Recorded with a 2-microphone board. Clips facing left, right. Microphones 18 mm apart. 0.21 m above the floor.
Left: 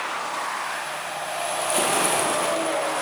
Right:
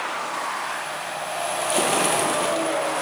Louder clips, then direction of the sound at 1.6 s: Right 1 dB; 20° right (ahead or behind).